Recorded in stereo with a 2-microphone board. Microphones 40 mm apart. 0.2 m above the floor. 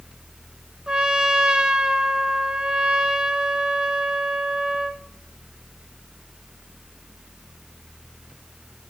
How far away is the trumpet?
About 0.6 m.